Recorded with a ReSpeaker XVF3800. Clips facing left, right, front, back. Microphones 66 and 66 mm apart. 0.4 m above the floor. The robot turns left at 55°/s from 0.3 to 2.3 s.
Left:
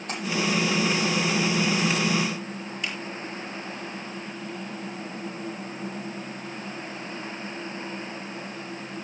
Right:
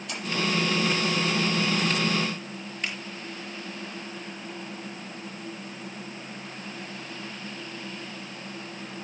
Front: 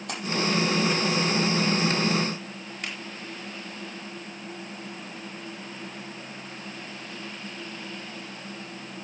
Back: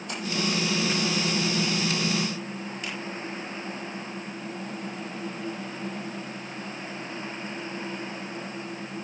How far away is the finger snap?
About 7.5 m.